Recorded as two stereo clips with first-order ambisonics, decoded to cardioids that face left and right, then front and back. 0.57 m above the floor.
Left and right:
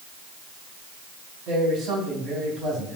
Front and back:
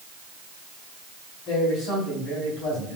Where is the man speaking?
35° right, 3.5 m.